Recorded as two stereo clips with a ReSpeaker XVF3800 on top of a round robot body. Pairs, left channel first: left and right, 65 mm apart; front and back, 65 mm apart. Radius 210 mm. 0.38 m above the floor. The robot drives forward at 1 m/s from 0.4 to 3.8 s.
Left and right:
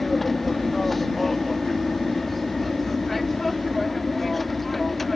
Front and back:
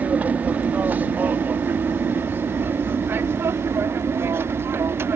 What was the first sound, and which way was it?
An aircraft, 175° left.